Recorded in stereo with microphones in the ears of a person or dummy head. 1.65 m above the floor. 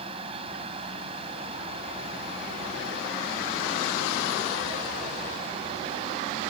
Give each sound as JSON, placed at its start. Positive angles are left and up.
{"t": 0.0, "sound": "a fan", "side_deg": -45}